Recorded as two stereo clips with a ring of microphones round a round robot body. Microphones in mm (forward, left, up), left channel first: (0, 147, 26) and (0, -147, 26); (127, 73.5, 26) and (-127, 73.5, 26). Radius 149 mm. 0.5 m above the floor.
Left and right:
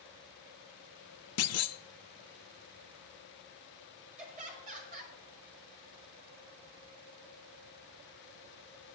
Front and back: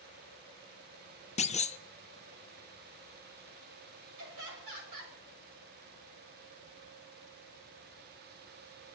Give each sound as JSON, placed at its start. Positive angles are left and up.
{"t": 1.4, "sound": "a clunk", "azimuth_deg": 60, "distance_m": 0.6}
{"t": 4.2, "sound": "laughter", "azimuth_deg": -155, "distance_m": 6.5}